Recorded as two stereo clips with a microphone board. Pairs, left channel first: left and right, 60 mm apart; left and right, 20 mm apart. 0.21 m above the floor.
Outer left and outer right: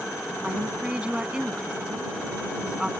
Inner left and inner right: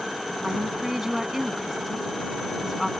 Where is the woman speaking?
15° right (ahead or behind).